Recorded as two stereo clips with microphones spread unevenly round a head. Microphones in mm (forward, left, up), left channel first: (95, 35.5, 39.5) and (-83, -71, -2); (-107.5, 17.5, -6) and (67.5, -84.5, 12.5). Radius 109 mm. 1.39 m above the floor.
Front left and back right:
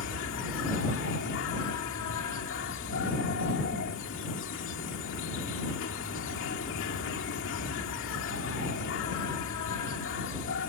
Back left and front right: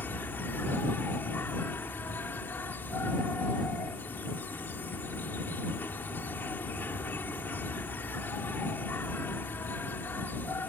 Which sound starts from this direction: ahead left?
An insect, at 0.0 s.